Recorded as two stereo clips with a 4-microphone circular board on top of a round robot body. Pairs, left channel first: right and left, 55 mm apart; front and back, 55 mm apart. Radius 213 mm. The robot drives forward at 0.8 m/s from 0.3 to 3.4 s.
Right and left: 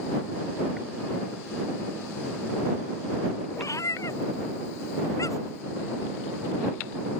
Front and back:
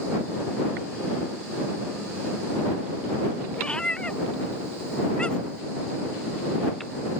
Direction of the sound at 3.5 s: 75° right.